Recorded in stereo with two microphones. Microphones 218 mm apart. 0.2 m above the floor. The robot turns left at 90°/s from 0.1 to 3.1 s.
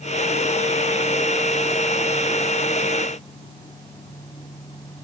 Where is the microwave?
No microwave in this recording.